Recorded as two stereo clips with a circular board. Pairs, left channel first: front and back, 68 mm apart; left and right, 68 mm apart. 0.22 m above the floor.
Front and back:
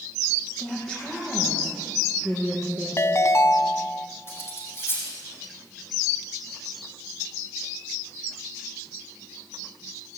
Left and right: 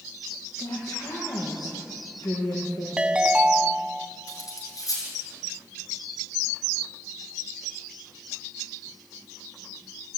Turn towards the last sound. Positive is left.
turn(degrees=55)